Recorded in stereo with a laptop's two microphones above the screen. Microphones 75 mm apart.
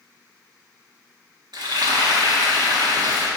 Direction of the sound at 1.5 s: 70° right (ahead or behind).